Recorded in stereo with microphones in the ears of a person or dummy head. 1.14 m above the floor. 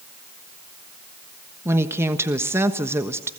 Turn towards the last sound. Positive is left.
turn(degrees=-10)  # may be behind; listen again after turning